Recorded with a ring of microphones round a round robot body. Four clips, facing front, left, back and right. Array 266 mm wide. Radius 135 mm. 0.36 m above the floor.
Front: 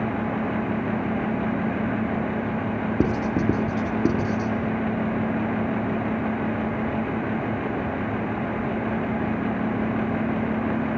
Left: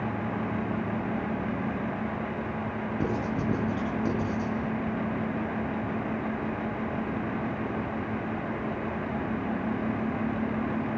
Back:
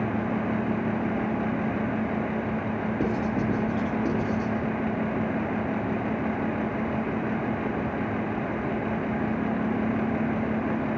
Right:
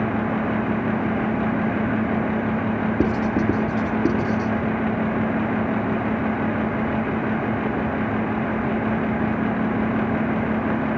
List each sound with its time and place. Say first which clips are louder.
3.0 s writing: right 8 dB, front 5 dB; 40° right, 3 m